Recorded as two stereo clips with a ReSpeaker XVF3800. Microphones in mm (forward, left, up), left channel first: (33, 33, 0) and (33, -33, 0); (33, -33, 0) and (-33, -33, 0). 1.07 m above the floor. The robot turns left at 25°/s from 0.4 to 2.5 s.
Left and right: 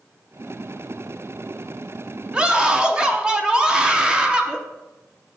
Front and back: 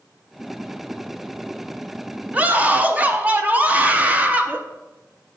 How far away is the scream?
About 0.7 m.